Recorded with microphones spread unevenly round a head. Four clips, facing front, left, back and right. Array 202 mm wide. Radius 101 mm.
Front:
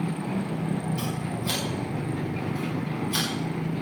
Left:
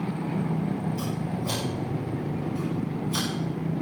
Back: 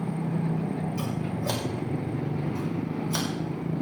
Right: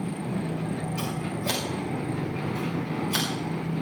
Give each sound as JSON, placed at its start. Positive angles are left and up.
{"t": 1.0, "sound": "scissors", "azimuth_deg": -145, "distance_m": 2.5}